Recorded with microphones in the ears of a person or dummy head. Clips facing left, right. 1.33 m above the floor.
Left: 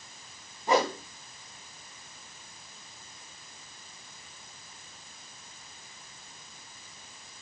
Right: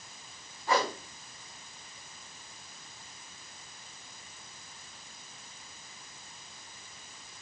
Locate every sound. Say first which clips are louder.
0.7 s a whoosh: left 4 dB; 15° left (ahead or behind), 1.5 m